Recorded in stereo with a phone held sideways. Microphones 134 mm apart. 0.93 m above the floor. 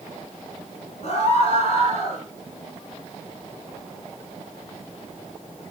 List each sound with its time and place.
1.0 s a scream: 50° left (ahead or behind), 3.5 m